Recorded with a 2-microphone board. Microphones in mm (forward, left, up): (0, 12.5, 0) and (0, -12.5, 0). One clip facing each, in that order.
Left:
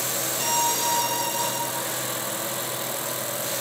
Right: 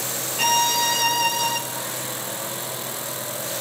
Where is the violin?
50° right (ahead or behind), 0.9 m.